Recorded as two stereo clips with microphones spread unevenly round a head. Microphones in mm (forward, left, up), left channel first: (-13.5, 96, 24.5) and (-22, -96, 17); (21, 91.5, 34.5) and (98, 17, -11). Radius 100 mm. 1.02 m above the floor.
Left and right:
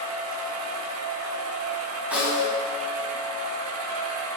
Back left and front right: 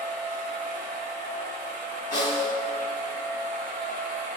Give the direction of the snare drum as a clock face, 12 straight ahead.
6 o'clock.